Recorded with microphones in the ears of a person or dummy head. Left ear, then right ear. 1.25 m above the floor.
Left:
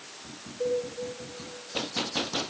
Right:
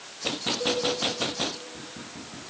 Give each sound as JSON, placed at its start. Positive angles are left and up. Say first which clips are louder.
{"t": 0.6, "sound": "a cowbell", "louder": "left 1 dB", "side_deg": 20, "distance_m": 4.0}